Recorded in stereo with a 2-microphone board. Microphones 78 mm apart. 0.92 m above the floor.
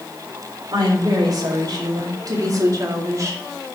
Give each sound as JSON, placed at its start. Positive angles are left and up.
{"t": 0.7, "sound": "a woman speaking", "side_deg": -60, "distance_m": 3.5}